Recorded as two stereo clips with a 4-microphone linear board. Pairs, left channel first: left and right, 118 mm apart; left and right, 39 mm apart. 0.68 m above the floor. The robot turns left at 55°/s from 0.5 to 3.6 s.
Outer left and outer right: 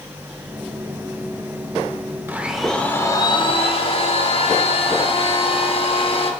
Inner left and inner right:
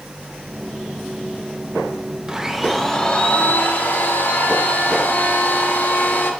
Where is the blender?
160° right, 0.7 m; by 6.3 s 125° left, 0.7 m.